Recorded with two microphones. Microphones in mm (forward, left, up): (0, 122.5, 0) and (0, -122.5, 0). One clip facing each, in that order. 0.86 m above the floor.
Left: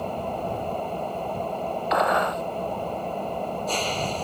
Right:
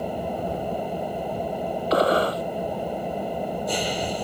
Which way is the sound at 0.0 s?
10° right (ahead or behind).